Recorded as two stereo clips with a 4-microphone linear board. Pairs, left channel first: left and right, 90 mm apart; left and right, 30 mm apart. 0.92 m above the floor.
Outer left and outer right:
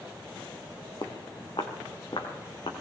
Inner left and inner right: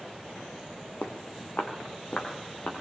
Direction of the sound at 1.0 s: 65° left (ahead or behind).